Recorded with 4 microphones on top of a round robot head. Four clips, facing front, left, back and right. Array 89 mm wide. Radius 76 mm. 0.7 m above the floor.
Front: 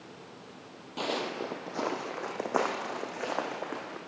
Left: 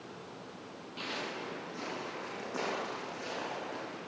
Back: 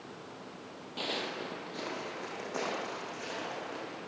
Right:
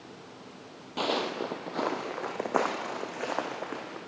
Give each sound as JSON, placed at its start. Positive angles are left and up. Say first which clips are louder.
{"t": 1.0, "sound": "footsteps", "louder": "right 10 dB, front 5 dB", "azimuth_deg": -75, "distance_m": 1.2}